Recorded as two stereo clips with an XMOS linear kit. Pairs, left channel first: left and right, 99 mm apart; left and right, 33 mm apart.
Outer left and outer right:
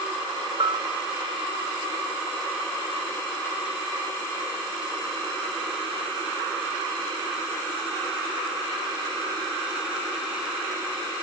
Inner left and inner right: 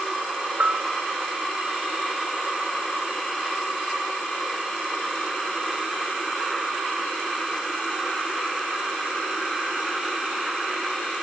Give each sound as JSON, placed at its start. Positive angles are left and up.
{"t": 0.6, "sound": "a bell", "side_deg": -55, "distance_m": 2.5}